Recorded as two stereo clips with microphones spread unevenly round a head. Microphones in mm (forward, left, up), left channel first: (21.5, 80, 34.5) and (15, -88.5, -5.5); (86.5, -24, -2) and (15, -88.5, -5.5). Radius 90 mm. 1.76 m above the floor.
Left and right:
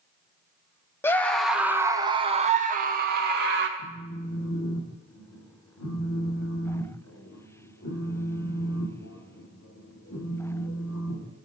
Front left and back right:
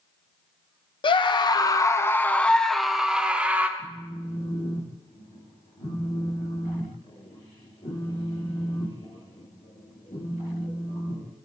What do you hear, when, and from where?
1.0 s a scream: 15° left, 1.1 m; by 3.7 s 65° right, 1.6 m
3.8 s a phone buzzing: 90° left, 2 m